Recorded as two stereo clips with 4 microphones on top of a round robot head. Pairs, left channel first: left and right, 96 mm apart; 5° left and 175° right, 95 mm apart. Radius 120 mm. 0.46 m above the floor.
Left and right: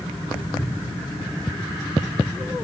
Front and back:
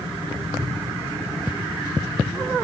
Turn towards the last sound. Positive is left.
turn(degrees=120)